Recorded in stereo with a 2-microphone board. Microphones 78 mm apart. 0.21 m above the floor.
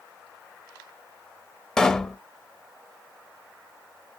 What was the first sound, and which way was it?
A pop, 10° left (ahead or behind).